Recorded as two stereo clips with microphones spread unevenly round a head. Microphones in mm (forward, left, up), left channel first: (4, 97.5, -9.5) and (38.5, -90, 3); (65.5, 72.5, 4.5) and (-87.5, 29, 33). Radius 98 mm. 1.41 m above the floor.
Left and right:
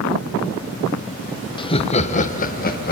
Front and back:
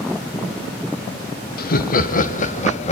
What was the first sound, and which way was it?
Laughter, 35° left.